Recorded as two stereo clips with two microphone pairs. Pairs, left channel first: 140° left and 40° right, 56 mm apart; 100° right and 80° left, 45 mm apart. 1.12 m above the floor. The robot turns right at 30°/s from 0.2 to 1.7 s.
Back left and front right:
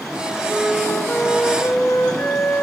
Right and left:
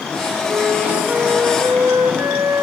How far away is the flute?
About 1.4 m.